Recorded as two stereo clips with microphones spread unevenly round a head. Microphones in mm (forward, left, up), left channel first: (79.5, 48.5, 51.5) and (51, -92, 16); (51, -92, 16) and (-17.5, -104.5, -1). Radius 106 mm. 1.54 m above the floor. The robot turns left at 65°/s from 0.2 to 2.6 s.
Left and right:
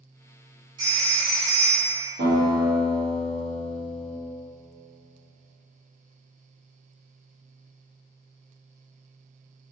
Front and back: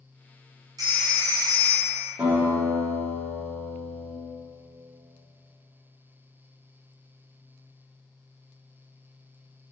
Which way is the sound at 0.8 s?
175° right.